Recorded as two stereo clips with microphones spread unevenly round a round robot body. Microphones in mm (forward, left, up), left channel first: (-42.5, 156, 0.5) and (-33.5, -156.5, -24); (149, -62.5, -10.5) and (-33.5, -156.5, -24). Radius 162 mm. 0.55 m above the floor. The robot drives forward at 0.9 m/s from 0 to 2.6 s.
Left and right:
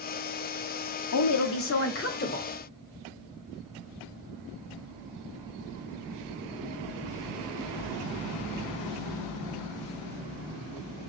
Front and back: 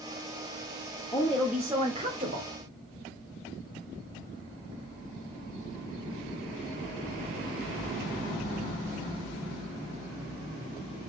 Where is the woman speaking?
100° left, 1.0 m; by 2.5 s 155° left, 1.7 m.